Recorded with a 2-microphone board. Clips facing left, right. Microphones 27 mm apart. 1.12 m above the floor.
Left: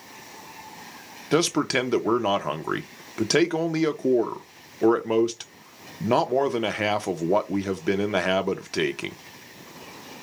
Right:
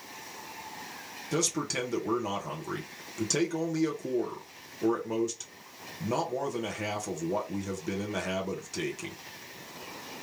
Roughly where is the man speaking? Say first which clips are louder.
Left 9 dB; left.